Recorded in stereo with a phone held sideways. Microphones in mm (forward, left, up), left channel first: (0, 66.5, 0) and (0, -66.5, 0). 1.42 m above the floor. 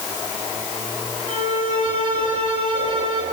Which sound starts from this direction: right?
A violin, at 1.3 s.